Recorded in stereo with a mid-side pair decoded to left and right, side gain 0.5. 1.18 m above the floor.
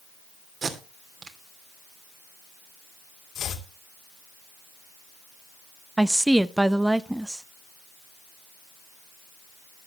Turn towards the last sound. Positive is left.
turn(degrees=-10)